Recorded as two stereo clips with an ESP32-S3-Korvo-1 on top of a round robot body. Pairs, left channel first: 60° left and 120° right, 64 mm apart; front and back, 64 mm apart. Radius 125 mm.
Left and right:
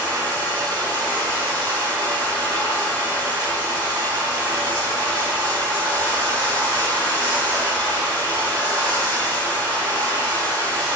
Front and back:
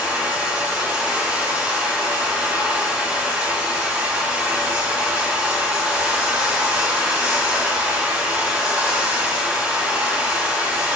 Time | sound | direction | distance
0.0 | running water | 110° right | 3 m